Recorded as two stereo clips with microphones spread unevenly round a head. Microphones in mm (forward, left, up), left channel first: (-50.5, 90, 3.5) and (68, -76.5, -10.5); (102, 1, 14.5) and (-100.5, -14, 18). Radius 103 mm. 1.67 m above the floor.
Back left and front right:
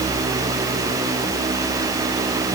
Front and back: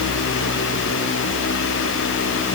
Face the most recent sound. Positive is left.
No sound to turn to.